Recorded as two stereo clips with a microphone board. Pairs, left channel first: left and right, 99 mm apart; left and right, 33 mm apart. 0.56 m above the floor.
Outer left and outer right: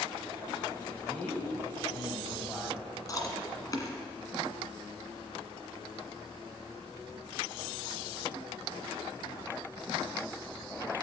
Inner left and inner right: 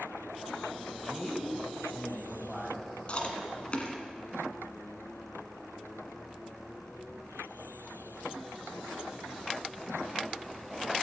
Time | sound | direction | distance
1.0 | a man speaking | 15° left (ahead or behind) | 3 m
3.1 | chewing | 35° left (ahead or behind) | 1.6 m